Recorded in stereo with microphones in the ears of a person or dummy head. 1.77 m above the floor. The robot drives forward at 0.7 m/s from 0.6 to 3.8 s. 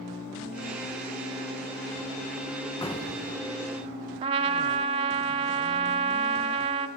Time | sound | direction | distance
2.8 | an explosion | 20° left (ahead or behind) | 1.8 m
4.2 | a trumpet | 30° right (ahead or behind) | 1.5 m